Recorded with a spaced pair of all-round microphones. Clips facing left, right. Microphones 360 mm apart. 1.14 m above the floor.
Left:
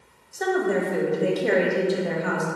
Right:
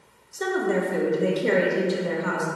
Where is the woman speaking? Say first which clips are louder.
Left 1 dB; 10° right (ahead or behind), 1.3 m.